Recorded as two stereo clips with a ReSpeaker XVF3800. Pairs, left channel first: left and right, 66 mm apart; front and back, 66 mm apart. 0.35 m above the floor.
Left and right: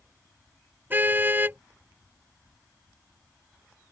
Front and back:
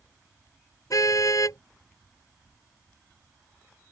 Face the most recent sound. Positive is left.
turn(degrees=-30)